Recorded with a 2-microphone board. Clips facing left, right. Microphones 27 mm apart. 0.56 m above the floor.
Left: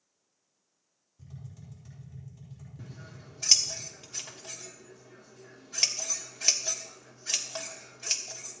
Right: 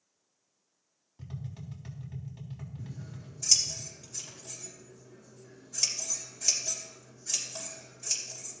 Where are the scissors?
45° left (ahead or behind), 1.4 m.